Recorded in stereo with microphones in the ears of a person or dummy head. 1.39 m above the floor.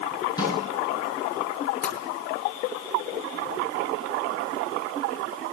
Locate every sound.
0.4 s a snare drum: 25° left (ahead or behind), 8 m
1.8 s tapping: 55° left (ahead or behind), 4 m